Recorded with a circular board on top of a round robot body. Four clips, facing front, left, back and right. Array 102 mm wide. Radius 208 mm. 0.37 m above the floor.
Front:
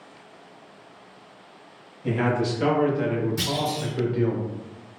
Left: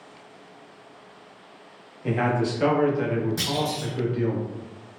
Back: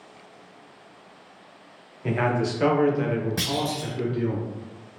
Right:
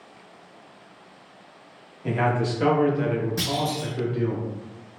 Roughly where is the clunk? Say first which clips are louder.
Right 1 dB, front 1 dB; behind.